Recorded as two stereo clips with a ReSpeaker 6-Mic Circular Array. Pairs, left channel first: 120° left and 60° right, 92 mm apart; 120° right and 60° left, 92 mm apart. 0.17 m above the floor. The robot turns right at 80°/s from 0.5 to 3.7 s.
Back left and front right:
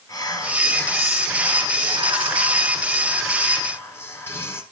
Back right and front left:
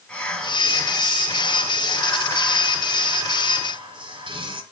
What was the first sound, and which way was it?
Whispering, 165° left.